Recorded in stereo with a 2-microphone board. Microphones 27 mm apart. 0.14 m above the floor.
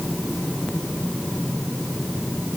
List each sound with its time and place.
Only background noise.